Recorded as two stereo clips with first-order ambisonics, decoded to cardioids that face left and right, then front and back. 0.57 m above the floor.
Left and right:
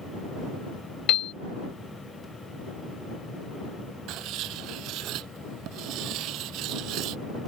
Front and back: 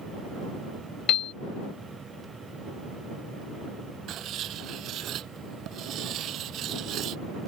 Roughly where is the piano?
Ahead left.